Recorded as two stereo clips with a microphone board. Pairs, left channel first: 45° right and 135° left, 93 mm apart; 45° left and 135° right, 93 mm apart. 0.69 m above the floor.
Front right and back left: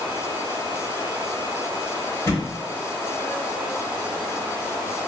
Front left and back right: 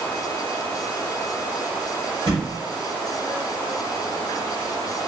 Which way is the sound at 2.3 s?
110° right.